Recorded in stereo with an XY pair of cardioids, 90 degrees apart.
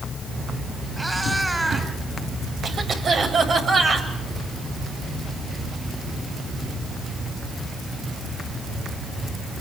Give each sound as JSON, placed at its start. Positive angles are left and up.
{"t": 1.0, "sound": "a cat meowing", "azimuth_deg": -10, "distance_m": 5.0}
{"t": 2.6, "sound": "a cough", "azimuth_deg": -55, "distance_m": 8.5}